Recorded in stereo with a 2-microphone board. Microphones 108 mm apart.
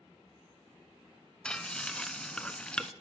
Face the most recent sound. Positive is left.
turn(degrees=10)  # may be behind; listen again after turning